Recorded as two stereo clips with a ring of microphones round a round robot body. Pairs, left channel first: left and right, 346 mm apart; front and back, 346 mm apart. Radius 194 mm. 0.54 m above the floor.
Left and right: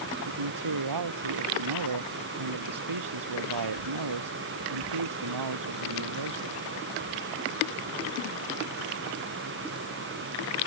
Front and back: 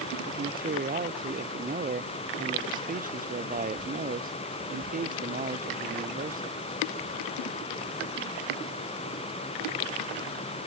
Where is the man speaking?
115° right.